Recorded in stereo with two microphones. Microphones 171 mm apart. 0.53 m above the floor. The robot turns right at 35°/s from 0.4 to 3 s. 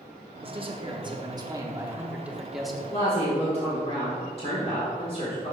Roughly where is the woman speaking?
Left.